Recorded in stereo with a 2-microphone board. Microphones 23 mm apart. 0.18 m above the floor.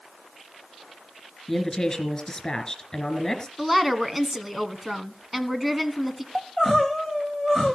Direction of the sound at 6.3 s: Centre (ahead or behind).